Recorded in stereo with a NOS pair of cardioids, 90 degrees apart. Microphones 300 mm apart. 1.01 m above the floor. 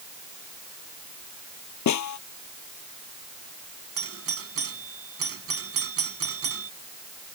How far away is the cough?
I don't hear a cough.